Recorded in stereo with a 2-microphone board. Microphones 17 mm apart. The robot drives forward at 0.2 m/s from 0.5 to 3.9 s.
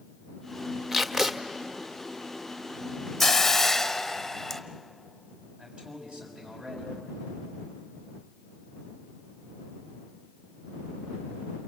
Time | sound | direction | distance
0.9 | tape being pulled | 25° right (ahead or behind) | 1.4 m
3.2 | a hiss | 15° left (ahead or behind) | 1.0 m
5.6 | a man speaking | 60° right (ahead or behind) | 6 m